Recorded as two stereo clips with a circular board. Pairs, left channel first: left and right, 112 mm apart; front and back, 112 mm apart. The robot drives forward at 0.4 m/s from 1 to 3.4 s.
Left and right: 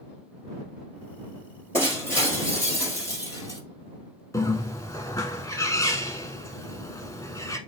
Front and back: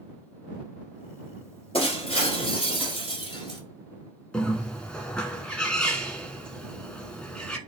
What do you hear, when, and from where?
1.7 s breaking glass: 25° left, 2.0 m; by 3.6 s 40° left, 1.5 m
4.3 s a bird: 75° left, 0.6 m